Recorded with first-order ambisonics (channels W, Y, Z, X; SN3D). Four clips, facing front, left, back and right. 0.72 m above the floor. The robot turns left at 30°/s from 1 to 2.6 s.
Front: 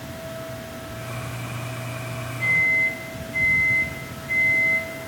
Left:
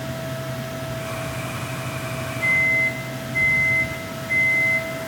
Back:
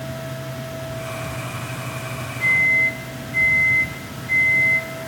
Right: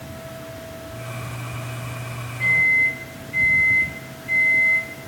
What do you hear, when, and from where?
2.4 s a microwave: 90° right, 1.2 m; by 4.9 s 95° right, 1.2 m